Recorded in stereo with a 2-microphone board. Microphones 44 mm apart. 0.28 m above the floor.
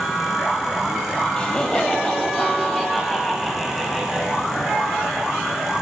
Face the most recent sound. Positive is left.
turn(degrees=-5)  # may be behind; listen again after turning